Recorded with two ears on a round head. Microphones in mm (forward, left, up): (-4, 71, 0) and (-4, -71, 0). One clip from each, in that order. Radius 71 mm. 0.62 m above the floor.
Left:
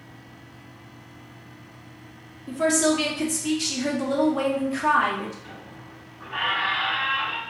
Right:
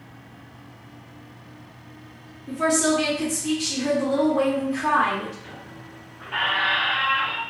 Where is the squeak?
50° right (ahead or behind), 0.8 m.